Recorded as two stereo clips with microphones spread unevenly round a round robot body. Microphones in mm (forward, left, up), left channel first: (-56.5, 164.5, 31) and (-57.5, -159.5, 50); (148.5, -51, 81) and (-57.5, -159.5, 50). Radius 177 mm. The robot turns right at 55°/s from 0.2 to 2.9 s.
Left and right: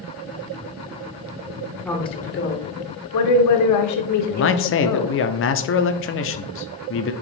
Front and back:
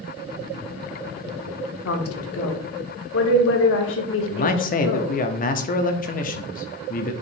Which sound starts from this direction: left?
A man speaking, at 4.3 s.